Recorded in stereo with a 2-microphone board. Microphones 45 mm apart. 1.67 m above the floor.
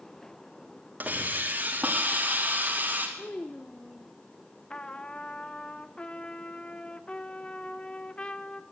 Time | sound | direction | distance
1.0 | a hiss | 40° right (ahead or behind) | 4 m
3.2 | a child speaking | 30° left (ahead or behind) | 0.8 m
4.7 | a trumpet | 20° left (ahead or behind) | 1.1 m